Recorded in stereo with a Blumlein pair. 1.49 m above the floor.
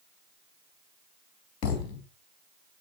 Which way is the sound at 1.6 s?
40° left.